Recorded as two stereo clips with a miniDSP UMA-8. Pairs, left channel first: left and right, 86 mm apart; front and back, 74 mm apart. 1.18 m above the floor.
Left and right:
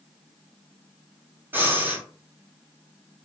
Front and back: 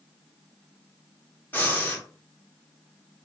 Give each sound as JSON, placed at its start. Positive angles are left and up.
{"t": 1.5, "sound": "breathing", "azimuth_deg": -40, "distance_m": 0.9}